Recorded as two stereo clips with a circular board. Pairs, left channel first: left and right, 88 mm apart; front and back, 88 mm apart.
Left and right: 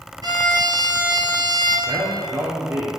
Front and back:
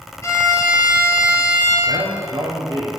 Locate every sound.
0.2 s a violin: 55° right, 3 m
1.9 s a man speaking: 145° right, 2.5 m